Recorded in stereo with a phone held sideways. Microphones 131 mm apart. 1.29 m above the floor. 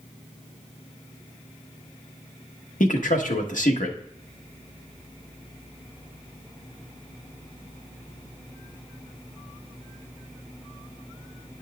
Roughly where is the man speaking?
Left.